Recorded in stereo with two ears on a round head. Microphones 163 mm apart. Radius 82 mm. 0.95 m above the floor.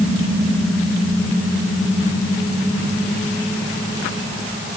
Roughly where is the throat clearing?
No throat clearing in this recording.